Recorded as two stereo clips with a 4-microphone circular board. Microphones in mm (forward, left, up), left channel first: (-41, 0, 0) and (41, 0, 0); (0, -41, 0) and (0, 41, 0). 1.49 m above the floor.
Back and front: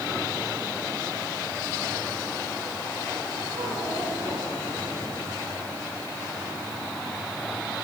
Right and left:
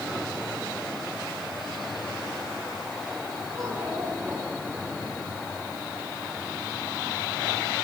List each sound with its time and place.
3.5 s a child speaking: 25° left, 9.5 m